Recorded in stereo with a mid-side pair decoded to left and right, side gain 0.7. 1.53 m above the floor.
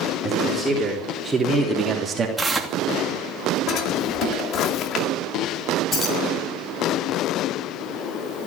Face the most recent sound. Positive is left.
turn(degrees=35)